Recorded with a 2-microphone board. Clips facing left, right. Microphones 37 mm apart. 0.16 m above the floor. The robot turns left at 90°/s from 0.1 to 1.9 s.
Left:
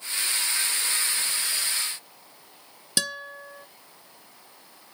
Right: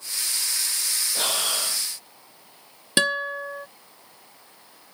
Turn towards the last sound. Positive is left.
turn(degrees=-40)  # may be behind; listen again after turning